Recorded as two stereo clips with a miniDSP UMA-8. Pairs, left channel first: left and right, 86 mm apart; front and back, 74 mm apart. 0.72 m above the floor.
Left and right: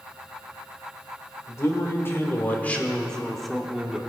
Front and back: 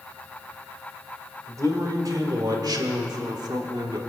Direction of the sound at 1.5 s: 145° left.